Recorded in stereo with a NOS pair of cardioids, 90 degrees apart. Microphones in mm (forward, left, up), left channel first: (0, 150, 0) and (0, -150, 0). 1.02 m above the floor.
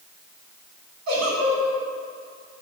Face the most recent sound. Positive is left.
turn(degrees=-60)